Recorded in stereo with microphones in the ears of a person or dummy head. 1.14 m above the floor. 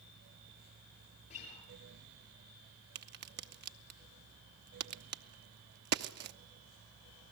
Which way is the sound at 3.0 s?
50° right (ahead or behind).